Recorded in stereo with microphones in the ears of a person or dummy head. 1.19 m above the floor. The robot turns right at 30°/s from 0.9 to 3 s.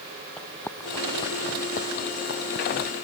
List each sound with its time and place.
0.4 s running footsteps: 5° left (ahead or behind); by 2.9 s 65° left (ahead or behind)